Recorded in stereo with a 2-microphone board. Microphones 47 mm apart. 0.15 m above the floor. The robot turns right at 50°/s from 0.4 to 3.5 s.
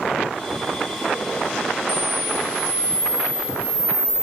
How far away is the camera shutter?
About 2 m.